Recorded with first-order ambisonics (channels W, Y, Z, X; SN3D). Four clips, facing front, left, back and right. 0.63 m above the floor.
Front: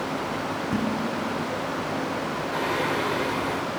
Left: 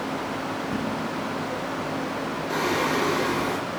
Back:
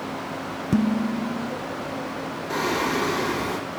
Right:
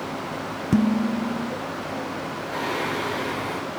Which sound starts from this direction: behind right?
Dishes clattering, at 0.7 s.